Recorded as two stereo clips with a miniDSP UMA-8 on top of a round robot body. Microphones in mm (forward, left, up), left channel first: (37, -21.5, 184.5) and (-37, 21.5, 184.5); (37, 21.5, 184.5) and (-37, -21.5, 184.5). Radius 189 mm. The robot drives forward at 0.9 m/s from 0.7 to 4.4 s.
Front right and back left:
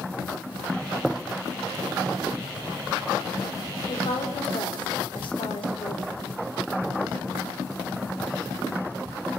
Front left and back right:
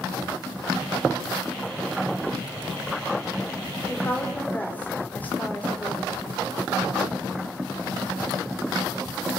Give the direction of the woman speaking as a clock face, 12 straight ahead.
1 o'clock.